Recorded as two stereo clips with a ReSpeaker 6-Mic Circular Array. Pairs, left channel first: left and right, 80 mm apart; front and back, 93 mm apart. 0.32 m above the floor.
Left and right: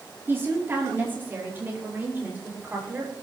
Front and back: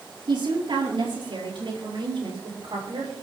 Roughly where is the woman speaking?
Behind right.